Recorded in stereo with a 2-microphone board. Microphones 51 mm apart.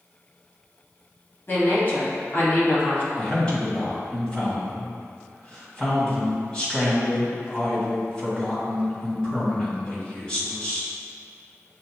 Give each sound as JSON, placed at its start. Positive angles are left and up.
{"t": 1.5, "sound": "a woman speaking", "side_deg": 45, "distance_m": 1.5}
{"t": 3.2, "sound": "a man speaking", "side_deg": 20, "distance_m": 1.9}